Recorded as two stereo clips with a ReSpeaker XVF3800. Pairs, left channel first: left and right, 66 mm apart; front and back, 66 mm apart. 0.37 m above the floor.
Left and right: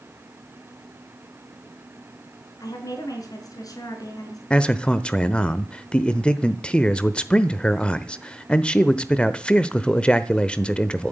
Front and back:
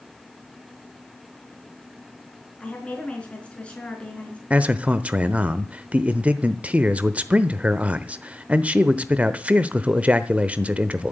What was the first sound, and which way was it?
A woman speaking, 75° left.